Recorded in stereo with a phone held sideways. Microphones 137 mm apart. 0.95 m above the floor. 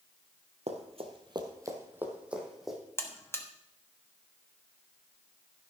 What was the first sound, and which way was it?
Running footsteps, 55° right (ahead or behind).